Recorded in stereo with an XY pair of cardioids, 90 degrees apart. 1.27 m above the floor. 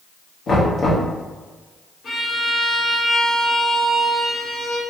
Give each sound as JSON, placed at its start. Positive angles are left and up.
{"t": 0.5, "sound": "knocking", "azimuth_deg": 50, "distance_m": 1.2}
{"t": 2.0, "sound": "a violin", "azimuth_deg": 55, "distance_m": 1.7}